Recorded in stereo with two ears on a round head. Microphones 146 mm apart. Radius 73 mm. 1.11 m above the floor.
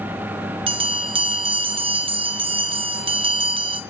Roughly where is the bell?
Right.